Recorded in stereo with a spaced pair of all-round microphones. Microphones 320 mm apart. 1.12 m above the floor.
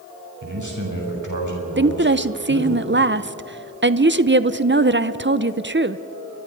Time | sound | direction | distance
0.4 | a man speaking | 65° right (ahead or behind) | 6 m
1.8 | a woman speaking | 35° right (ahead or behind) | 0.7 m